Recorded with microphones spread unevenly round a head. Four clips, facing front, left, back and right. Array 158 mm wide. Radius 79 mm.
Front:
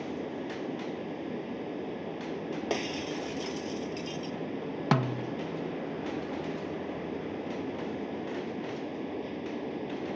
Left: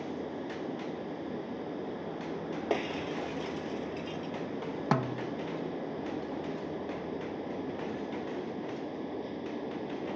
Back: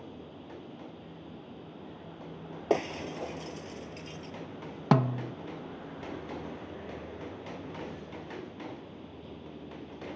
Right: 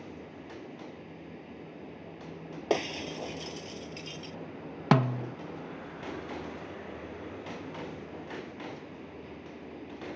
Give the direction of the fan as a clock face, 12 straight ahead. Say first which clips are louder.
Left 8 dB, front 11 dB; 11 o'clock.